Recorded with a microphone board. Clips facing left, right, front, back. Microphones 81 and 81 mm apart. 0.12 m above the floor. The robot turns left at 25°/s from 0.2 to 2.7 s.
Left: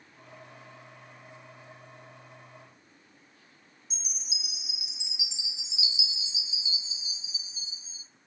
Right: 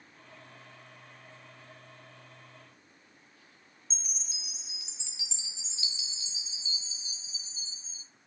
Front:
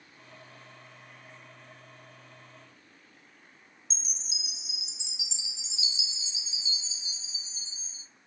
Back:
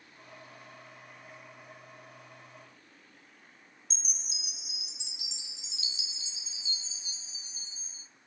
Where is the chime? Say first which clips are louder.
Left 5 dB, front 3 dB; 165° left, 0.6 m.